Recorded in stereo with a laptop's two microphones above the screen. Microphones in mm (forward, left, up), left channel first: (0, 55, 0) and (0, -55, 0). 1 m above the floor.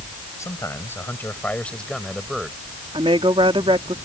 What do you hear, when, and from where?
0.4 s a man speaking: 30° left (ahead or behind); by 2.6 s 5° right (ahead or behind)
2.9 s a woman speaking: 60° right (ahead or behind)